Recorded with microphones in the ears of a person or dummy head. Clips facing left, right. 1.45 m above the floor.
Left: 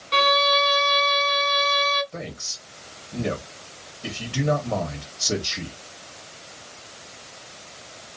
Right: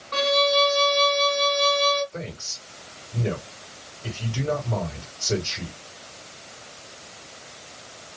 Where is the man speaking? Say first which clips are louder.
Even; 80° left, 1.9 m.